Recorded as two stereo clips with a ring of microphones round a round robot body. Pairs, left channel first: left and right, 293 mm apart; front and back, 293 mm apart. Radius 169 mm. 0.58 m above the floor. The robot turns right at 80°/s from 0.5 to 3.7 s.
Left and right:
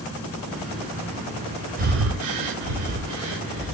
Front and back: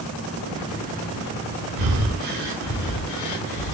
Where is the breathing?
155° right, 0.7 m; by 3.7 s straight ahead, 0.7 m.